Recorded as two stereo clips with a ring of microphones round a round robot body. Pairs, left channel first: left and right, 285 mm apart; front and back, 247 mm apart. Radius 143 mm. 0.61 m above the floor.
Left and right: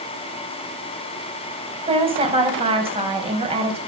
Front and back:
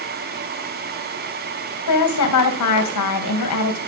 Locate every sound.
1.9 s a woman speaking: 20° right, 3.5 m